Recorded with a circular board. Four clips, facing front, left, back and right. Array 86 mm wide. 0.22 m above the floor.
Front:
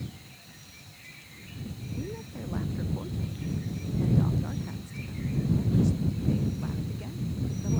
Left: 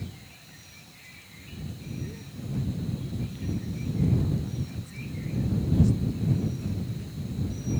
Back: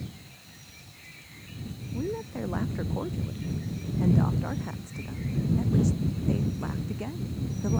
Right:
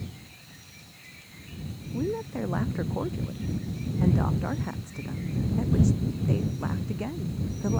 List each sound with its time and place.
1.9 s a woman speaking: 115° right